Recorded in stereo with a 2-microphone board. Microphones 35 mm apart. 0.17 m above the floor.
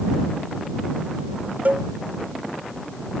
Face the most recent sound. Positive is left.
turn(degrees=-45)  # may be behind; listen again after turning